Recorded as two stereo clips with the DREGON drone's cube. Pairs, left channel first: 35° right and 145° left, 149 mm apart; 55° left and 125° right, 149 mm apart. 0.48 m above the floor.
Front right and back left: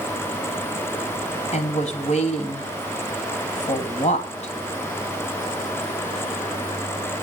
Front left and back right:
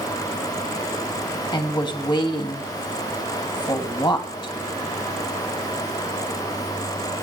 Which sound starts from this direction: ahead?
A woman speaking, at 1.5 s.